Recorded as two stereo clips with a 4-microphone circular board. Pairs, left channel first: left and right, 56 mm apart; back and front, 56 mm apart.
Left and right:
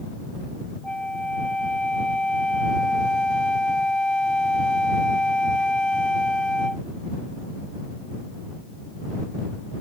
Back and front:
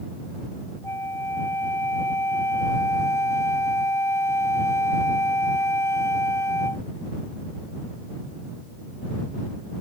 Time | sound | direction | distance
0.8 | a flute | 160° left | ?